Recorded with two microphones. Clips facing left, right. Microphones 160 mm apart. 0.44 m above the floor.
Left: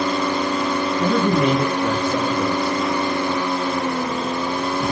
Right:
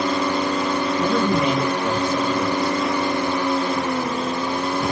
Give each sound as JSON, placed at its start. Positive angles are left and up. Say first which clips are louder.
{"t": 1.0, "sound": "a man speaking", "louder": "left 3 dB", "side_deg": 65, "distance_m": 7.0}